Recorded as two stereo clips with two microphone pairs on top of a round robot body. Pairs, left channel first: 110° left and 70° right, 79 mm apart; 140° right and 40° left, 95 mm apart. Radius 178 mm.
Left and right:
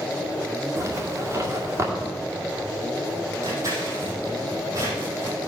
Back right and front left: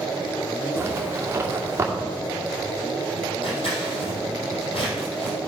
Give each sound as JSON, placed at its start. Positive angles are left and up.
{"t": 0.8, "sound": "a zipper", "azimuth_deg": -20, "distance_m": 2.5}
{"t": 3.4, "sound": "scissors", "azimuth_deg": -120, "distance_m": 4.0}